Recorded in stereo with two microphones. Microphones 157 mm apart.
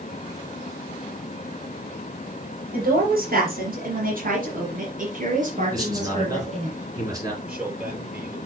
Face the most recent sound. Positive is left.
turn(degrees=-5)  # may be behind; listen again after turning